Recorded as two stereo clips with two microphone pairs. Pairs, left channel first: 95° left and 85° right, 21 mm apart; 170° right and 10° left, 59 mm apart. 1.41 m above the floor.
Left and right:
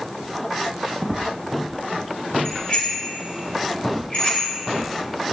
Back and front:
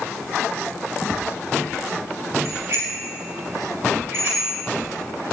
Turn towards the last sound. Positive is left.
turn(degrees=60)